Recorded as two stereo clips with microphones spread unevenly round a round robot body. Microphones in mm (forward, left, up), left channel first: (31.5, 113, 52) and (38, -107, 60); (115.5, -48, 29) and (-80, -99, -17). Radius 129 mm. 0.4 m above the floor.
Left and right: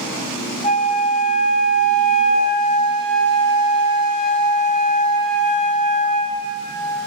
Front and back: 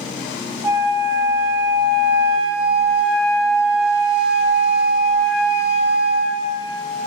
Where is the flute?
125° left, 0.8 m.